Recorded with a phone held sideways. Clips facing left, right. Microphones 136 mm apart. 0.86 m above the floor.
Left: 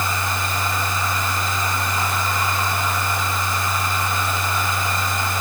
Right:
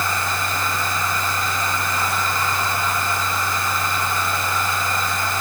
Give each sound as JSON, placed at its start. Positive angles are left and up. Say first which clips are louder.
{"t": 0.0, "sound": "a machine running", "louder": "even", "side_deg": 20, "distance_m": 6.5}